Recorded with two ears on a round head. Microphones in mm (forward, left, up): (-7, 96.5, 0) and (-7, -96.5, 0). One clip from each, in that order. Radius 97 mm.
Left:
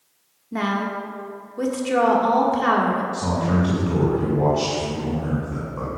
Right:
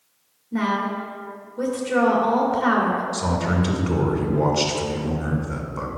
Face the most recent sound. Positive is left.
turn(degrees=-55)  # may be behind; listen again after turning